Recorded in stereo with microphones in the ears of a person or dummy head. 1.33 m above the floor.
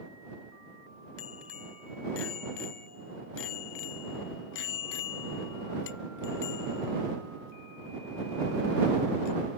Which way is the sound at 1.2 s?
80° left.